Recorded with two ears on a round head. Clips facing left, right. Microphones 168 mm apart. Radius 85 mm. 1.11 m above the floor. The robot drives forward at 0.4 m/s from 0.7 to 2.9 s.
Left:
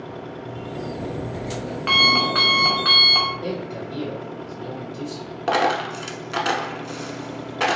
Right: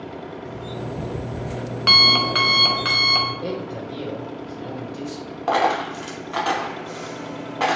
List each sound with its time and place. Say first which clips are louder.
0.5 s an alarm clock: left 1 dB; 65° right (ahead or behind), 0.5 m; by 3.3 s 30° right (ahead or behind), 0.9 m
3.4 s a man speaking: even; 20° right (ahead or behind), 1.8 m
5.5 s a dropped coin: right 1 dB; 25° left (ahead or behind), 0.7 m